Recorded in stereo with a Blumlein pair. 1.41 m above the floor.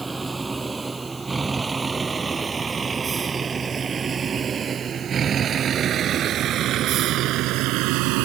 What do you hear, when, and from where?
0.0 s a vehicle: 10° right; by 8.3 s 45° right